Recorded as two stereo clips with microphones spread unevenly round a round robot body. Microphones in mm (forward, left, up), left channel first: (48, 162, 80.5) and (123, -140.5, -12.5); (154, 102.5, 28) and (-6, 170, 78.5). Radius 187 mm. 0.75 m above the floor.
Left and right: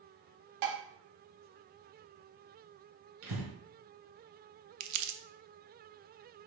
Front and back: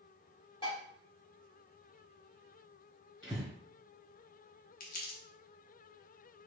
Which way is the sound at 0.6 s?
95° right.